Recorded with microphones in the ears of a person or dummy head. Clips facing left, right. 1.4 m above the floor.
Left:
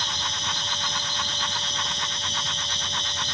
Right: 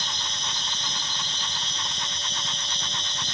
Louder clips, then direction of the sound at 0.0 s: Left 3 dB; 15° right (ahead or behind).